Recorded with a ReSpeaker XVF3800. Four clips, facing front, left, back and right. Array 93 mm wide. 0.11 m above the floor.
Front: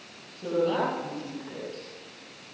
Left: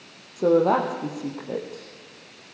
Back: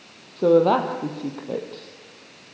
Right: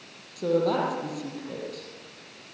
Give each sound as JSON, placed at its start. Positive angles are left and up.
{"t": 0.4, "sound": "a woman speaking", "azimuth_deg": 155, "distance_m": 4.0}